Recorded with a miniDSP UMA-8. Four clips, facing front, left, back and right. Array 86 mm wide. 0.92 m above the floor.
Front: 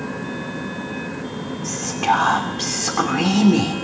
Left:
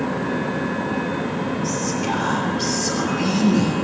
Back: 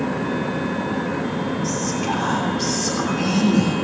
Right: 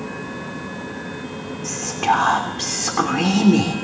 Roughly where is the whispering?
Ahead right.